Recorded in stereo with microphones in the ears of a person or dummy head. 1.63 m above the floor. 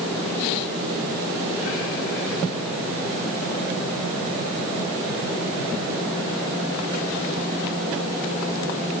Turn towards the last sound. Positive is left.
No sound to turn to.